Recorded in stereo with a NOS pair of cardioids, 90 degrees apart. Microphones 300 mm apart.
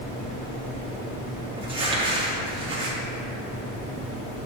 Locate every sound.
1.6 s crumpling: 15° right, 1.5 m